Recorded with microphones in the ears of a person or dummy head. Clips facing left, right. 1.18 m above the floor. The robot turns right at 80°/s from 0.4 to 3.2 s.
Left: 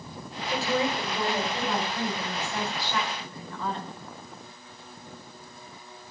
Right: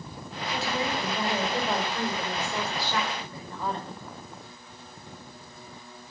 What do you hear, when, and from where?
0.5 s a woman speaking: 130° left, 4.5 m; by 4.0 s 10° right, 4.5 m